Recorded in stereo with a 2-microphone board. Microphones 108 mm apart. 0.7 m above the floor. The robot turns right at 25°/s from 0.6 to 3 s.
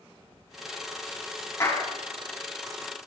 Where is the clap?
30° left (ahead or behind), 3.5 m; by 1.8 s 25° left (ahead or behind), 3.5 m.